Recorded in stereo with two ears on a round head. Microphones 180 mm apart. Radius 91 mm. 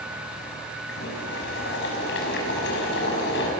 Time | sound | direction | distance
0.9 | boiling | 60° left (ahead or behind) | 5.5 m